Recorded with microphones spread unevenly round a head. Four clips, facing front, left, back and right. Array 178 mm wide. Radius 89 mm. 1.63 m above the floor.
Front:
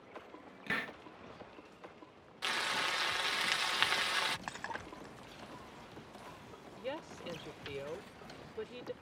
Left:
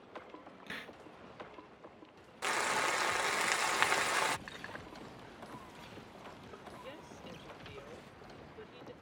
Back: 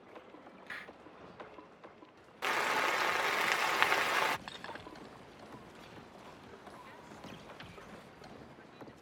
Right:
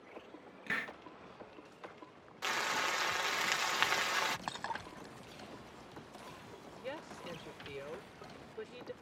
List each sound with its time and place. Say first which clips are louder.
0.7 s a hiss: right 8 dB, front 10 dB; 15° right
2.4 s frying: left 2 dB, back 5 dB; 150° left
4.5 s breaking glass: right 6 dB, front 3 dB; 75° right
6.8 s a woman speaking: right 4 dB, front 8 dB; 20° right